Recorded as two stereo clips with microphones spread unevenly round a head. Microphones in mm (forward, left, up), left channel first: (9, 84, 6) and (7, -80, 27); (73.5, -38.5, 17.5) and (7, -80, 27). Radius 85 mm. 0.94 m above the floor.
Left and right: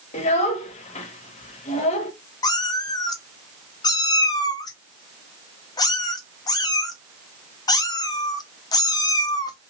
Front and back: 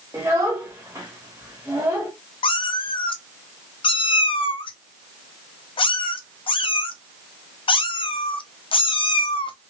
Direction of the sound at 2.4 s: 20° left.